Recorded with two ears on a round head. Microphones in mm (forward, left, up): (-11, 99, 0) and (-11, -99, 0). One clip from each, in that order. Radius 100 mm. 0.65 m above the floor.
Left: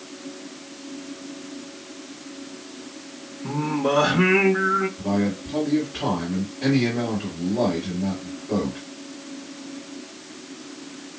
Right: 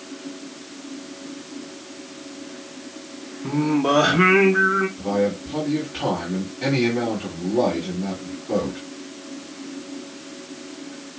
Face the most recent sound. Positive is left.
turn(degrees=-10)  # may be behind; listen again after turning